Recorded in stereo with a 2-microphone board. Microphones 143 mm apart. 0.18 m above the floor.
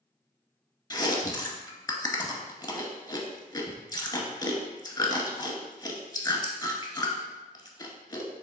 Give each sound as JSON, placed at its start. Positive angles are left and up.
{"t": 0.9, "sound": "chewing", "side_deg": 25, "distance_m": 0.6}